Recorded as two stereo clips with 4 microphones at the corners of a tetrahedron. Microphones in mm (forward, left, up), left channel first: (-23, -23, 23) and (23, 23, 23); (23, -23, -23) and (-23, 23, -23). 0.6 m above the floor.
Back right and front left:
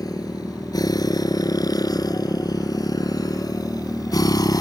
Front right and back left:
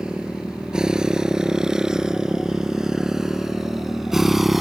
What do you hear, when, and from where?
0.0 s a motorcycle: 145° right; by 4.6 s 140° right